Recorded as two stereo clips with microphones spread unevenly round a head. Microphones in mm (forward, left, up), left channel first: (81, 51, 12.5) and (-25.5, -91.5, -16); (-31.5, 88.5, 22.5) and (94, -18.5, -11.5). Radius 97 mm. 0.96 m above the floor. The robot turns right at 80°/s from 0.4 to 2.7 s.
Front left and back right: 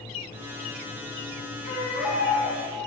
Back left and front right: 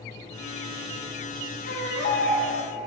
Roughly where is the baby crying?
Left.